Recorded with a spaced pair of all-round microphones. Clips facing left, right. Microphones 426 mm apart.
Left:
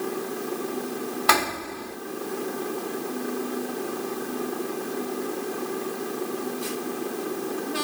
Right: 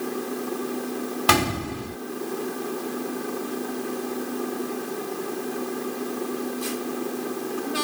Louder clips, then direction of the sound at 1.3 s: Right 4 dB; 50° right (ahead or behind).